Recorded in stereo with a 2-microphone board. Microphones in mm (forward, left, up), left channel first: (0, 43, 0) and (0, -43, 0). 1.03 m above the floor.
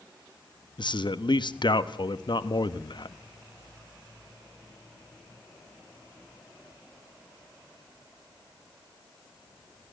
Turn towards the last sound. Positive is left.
turn(degrees=60)  # may be behind; listen again after turning